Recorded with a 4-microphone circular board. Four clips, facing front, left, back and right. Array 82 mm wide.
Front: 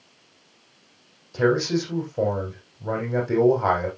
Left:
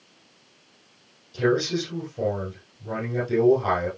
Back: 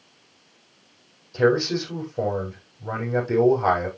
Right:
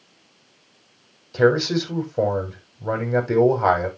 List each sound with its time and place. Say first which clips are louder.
1.3 s a man speaking: right 5 dB, back 1 dB; 80° right, 6.5 m